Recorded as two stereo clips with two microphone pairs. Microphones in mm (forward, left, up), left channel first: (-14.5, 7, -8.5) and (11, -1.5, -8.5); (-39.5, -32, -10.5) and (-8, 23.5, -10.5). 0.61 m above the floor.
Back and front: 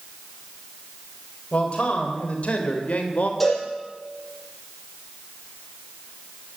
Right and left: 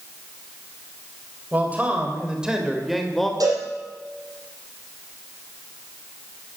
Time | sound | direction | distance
1.5 | a man speaking | 125° left | 3 m
3.4 | a cowbell | 80° left | 7 m